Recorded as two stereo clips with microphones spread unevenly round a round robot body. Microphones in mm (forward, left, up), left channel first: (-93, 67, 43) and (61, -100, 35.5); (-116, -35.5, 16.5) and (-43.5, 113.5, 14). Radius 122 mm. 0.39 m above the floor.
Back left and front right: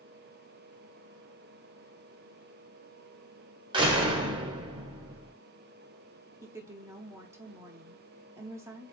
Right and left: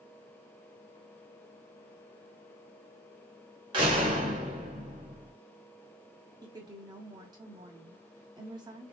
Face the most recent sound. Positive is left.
turn(degrees=20)